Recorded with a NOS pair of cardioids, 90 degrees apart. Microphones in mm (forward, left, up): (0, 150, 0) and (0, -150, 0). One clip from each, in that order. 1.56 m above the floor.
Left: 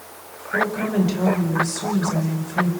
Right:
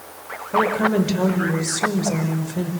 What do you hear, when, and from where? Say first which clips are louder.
0.5 s a woman speaking: right 3 dB; 35° right, 5.5 m